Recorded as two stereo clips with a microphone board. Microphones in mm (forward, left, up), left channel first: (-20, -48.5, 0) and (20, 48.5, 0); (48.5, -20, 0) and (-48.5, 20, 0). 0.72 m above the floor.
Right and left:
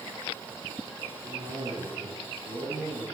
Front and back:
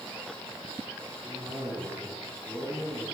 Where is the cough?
65° left, 9.5 m.